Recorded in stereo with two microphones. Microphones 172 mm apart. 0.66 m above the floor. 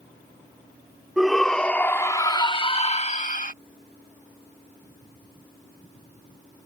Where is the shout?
Centre (ahead or behind); by 3.5 s 50° left (ahead or behind).